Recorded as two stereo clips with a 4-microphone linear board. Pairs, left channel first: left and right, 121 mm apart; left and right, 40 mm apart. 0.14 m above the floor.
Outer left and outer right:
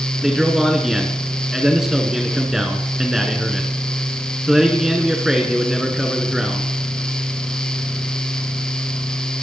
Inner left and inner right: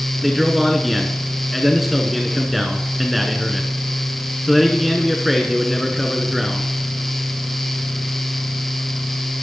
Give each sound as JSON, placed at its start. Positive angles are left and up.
{"t": 0.2, "sound": "a man speaking", "side_deg": -5, "distance_m": 1.2}